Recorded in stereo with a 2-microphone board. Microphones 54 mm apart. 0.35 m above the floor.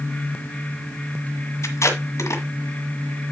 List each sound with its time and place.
1.6 s tape being pulled: 65° left (ahead or behind), 1.8 m